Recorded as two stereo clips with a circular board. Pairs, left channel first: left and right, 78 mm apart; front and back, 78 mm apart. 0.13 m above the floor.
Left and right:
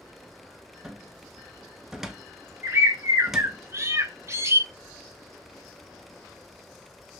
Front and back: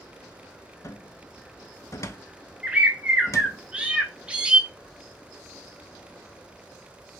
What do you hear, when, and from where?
0.8 s a cupboard door: 10° right, 0.5 m
2.6 s a bird: 115° right, 0.7 m